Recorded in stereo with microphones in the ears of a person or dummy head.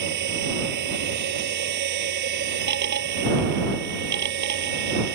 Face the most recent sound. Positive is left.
turn(degrees=-60)  # may be behind; listen again after turning